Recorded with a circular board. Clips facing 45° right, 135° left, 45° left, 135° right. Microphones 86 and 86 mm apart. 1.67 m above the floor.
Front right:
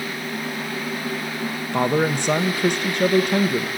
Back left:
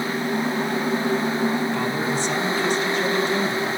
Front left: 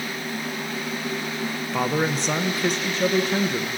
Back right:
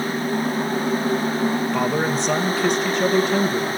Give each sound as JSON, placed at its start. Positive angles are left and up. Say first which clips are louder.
{"t": 1.7, "sound": "a man speaking", "louder": "front right 3 dB, back right 3 dB", "azimuth_deg": -45, "distance_m": 1.0}